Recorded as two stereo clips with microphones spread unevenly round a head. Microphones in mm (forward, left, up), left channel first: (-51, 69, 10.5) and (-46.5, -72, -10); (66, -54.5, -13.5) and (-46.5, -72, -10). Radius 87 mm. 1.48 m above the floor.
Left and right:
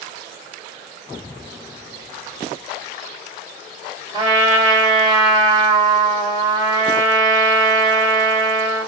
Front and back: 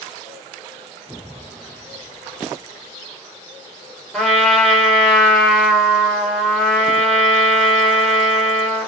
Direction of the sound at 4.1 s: 80° right.